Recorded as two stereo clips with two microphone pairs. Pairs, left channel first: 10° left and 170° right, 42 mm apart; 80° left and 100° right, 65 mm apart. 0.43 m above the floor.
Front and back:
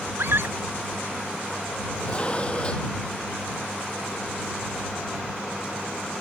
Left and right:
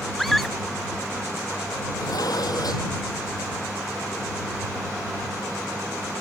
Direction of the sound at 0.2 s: 165° left.